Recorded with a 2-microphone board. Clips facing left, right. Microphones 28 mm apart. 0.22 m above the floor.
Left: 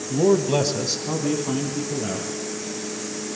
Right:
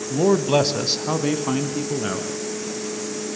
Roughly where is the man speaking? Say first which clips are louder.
Right 1 dB; centre.